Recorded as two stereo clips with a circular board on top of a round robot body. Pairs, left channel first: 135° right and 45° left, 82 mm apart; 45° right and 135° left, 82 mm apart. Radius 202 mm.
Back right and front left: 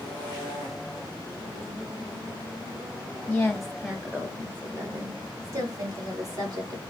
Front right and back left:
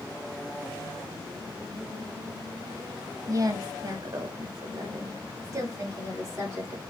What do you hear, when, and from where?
3.3 s a woman speaking: 150° left, 1.1 m; by 6.8 s 80° left, 2 m